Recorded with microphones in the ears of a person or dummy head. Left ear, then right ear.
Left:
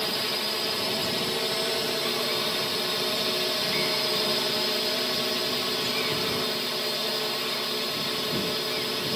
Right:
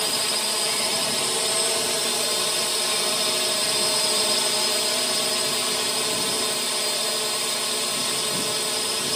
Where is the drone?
30° right (ahead or behind).